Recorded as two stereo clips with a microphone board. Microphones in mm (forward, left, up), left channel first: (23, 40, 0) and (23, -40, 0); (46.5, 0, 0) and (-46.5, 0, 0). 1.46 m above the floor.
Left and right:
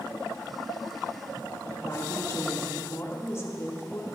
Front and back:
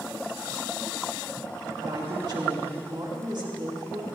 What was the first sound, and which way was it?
A woman speaking, 145° left.